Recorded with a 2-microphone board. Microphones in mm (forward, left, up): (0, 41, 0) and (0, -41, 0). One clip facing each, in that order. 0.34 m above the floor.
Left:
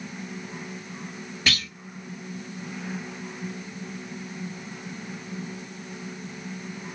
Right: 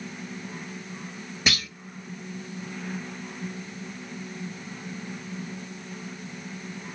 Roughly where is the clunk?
Centre.